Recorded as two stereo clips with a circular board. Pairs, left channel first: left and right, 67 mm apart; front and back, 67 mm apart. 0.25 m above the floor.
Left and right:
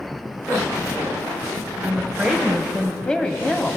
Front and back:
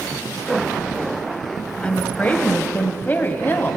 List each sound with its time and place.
1.8 s a woman speaking: 50° right, 1.2 m; by 3.8 s 35° left, 1.5 m